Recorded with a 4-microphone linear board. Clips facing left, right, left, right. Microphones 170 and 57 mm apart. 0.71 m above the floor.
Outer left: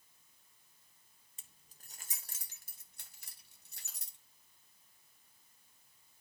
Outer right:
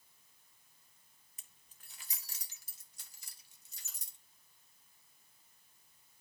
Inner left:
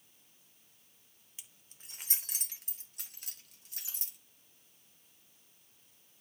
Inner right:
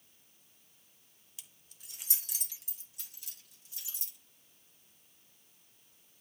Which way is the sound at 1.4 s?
30° left (ahead or behind).